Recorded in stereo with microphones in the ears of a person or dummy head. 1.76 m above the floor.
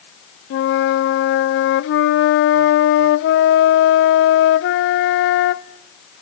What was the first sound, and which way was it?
A flute, 65° left (ahead or behind).